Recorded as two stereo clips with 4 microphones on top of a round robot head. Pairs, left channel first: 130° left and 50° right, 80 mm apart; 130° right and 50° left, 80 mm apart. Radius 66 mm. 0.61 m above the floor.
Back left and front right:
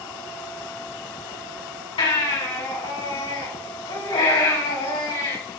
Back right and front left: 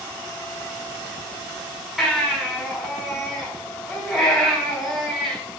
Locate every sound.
2.0 s a baby crying: 140° left, 4 m